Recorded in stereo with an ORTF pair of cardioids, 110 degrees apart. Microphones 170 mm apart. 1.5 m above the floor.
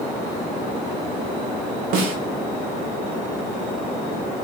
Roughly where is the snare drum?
Ahead right.